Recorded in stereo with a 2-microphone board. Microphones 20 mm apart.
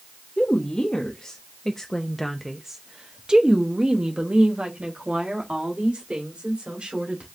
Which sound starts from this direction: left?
A woman speaking, at 0.4 s.